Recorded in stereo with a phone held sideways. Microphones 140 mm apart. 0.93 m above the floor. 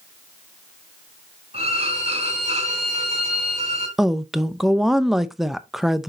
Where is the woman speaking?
Centre (ahead or behind), 0.6 m.